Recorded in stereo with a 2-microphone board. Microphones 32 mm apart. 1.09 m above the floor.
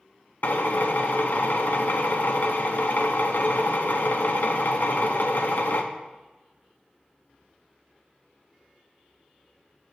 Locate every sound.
0.4 s a drill: 65° left (ahead or behind), 0.7 m